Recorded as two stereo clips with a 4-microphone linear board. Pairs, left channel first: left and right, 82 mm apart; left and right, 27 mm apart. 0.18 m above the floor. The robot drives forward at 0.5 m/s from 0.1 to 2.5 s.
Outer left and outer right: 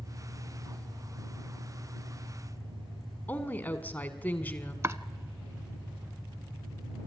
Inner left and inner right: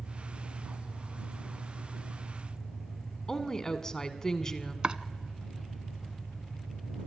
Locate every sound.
0.0 s an engine running: 75° right (ahead or behind), 8 m; by 7.1 s 65° right (ahead or behind), 8.5 m
3.3 s a woman speaking: 20° left (ahead or behind), 1.6 m
4.8 s chopping: 35° right (ahead or behind), 0.7 m